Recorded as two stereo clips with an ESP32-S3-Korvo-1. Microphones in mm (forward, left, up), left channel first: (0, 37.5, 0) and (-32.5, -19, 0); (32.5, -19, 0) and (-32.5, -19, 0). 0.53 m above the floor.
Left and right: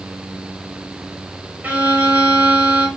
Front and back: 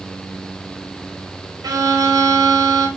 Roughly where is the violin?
Behind.